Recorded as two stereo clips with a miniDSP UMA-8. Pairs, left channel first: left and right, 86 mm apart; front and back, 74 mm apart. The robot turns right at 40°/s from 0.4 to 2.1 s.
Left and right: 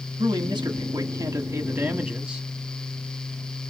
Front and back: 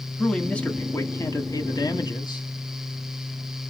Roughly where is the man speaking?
Right.